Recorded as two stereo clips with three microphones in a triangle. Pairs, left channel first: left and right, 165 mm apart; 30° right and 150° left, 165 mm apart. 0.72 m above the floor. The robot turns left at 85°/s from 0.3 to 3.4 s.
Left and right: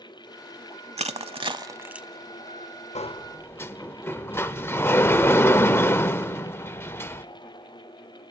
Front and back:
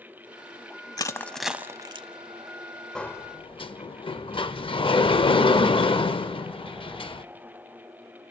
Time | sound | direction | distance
1.0 | crushing | 80° right | 0.7 m
3.0 | a sliding door | 55° left | 0.5 m